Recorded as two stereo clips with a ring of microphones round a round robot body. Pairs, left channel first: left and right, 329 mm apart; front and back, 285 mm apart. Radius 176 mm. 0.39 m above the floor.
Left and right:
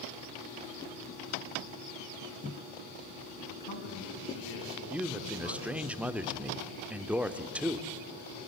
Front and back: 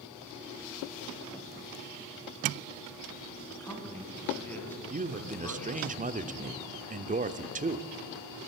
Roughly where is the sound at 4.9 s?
Behind.